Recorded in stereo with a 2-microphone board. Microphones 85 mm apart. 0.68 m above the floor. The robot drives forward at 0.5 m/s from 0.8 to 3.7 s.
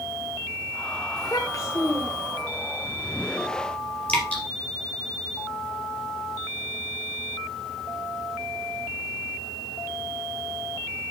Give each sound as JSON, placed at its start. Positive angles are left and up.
{"t": 1.2, "sound": "a child speaking", "side_deg": 45, "distance_m": 1.4}
{"t": 4.1, "sound": "dripping", "side_deg": 15, "distance_m": 3.5}